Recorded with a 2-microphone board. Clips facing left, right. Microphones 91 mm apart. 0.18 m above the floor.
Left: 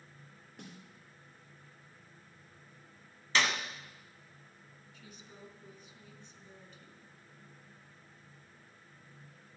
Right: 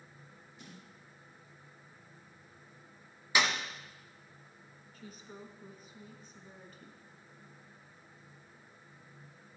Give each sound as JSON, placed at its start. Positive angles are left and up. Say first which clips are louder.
{"t": 0.6, "sound": "a snare drum", "louder": "left 3 dB", "side_deg": 60, "distance_m": 6.5}
{"t": 3.4, "sound": "a clap", "louder": "right 1 dB", "side_deg": -10, "distance_m": 1.4}
{"t": 4.9, "sound": "a woman speaking", "louder": "right 6 dB", "side_deg": -40, "distance_m": 1.8}